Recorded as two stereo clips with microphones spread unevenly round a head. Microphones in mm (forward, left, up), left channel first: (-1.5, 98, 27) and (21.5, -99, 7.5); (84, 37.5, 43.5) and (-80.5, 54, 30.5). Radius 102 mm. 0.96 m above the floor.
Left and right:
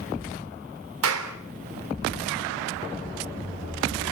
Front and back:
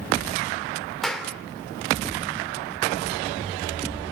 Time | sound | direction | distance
1.0 | a clap | 95° right | 2.5 m